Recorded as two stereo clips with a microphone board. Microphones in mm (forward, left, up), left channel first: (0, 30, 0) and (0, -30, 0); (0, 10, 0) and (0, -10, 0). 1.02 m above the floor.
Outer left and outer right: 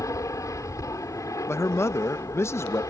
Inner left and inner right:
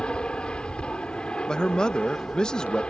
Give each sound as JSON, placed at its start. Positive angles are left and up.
{"t": 0.0, "sound": "an aircraft", "side_deg": 60}
{"t": 1.5, "sound": "a man speaking", "side_deg": 45}